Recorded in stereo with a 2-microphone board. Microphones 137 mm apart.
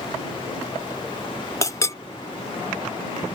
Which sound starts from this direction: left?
A clink, at 1.6 s.